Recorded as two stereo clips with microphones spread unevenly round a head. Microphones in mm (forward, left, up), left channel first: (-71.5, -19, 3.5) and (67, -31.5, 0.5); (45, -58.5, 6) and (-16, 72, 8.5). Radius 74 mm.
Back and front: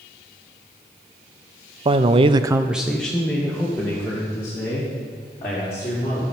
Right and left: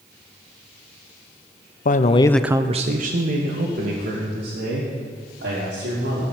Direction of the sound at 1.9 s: 55° right.